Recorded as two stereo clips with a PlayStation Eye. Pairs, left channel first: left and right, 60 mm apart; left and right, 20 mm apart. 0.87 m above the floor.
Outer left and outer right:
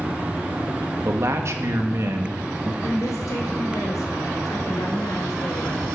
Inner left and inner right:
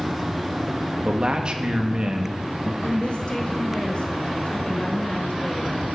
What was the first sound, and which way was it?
A man speaking, 55° right (ahead or behind).